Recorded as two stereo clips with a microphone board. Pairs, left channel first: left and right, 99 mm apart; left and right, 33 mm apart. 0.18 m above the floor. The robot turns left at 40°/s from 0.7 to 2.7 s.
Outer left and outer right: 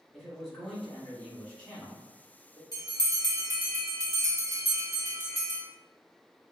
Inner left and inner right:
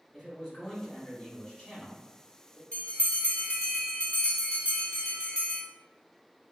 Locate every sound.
0.1 s a man speaking: centre (ahead or behind), 1.1 m; by 2.6 s 25° left (ahead or behind), 1.1 m
2.7 s a bell: 40° left (ahead or behind), 1.0 m